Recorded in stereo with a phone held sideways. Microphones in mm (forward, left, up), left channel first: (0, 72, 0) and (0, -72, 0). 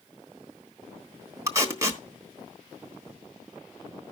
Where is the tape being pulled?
25° right (ahead or behind), 1.2 m.